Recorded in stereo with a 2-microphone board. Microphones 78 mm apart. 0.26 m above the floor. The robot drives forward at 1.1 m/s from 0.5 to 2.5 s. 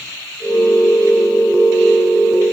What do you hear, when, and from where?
Only background noise.